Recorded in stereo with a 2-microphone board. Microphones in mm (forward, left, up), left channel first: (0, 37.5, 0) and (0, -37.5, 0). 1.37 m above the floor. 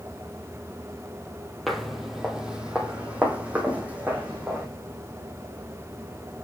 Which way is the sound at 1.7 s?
Centre (ahead or behind).